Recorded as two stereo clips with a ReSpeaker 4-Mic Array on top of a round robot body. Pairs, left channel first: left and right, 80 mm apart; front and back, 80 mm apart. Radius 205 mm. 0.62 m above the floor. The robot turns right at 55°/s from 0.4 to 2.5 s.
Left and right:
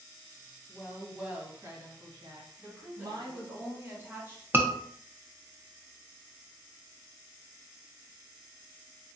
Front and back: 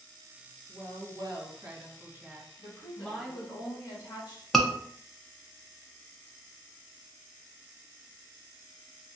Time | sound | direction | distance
0.7 | a woman speaking | straight behind | 1.6 m
2.6 | a woman speaking | 30° right | 2.0 m
4.5 | a scream | 85° right | 0.8 m